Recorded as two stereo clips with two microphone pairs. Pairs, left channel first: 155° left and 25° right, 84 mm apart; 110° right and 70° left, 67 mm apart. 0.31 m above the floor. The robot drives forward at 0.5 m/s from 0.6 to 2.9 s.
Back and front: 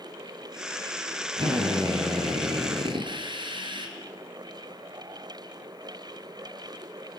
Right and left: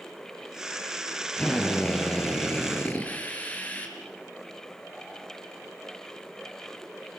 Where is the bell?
No bell in this recording.